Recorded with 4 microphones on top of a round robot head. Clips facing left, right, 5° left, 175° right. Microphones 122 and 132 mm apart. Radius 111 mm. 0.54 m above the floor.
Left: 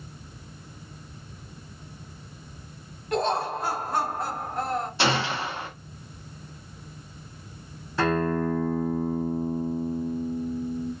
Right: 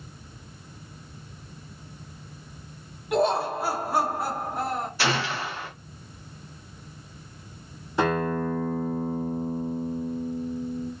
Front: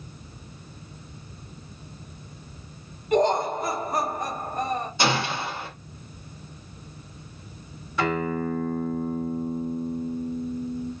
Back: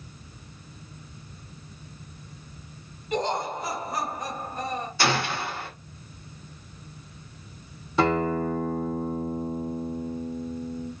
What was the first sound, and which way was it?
Laughter, 10° right.